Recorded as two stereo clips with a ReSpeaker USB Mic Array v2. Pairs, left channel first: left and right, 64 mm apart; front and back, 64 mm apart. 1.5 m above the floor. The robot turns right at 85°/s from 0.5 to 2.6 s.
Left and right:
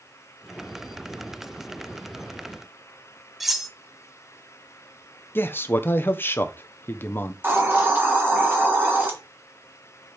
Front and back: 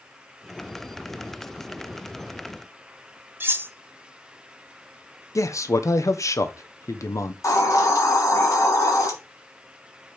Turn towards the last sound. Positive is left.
turn(degrees=-30)